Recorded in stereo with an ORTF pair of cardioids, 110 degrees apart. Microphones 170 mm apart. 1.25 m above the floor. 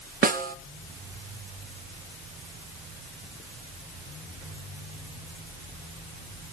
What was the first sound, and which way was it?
A snare drum, 60° right.